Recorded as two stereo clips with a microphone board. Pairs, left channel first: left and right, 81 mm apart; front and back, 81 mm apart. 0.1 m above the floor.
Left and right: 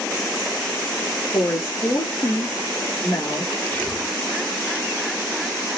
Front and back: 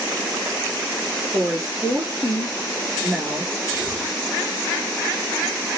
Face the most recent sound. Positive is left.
turn(degrees=125)